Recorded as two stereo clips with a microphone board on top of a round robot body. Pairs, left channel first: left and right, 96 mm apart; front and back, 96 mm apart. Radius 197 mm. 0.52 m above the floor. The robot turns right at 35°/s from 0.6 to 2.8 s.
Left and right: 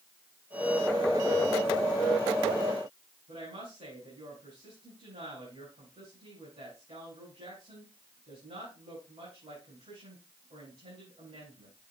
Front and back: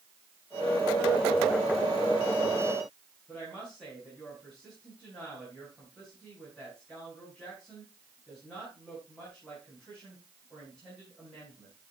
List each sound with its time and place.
3.3 s a woman speaking: 80° right, 8 m